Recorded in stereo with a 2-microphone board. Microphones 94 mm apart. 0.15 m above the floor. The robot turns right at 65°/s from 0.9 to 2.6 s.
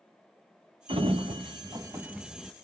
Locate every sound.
0.9 s a sliding door: 100° right, 0.7 m; by 2.5 s 5° left, 0.7 m